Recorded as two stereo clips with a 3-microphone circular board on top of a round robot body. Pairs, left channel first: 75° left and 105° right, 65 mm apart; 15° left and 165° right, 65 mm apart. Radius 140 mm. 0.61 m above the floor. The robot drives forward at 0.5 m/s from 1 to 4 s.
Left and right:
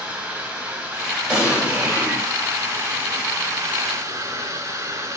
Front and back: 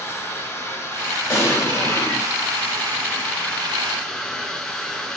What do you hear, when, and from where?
0.0 s running water: 30° right, 2 m; by 5.2 s 70° right, 1.2 m
1.3 s an explosion: 25° right, 1.8 m; by 2.3 s 35° right, 1.4 m